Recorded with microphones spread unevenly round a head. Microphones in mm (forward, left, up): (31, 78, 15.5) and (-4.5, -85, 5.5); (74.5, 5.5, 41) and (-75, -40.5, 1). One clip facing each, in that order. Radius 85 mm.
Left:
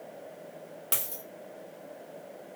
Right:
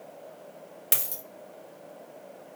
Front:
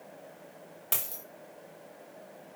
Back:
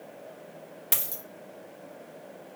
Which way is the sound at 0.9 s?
60° right.